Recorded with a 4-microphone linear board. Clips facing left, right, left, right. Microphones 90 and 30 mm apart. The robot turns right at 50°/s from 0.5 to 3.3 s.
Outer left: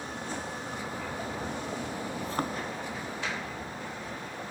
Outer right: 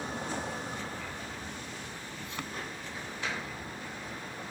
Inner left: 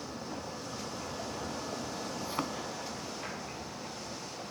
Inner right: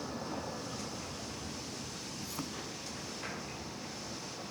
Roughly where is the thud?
Left.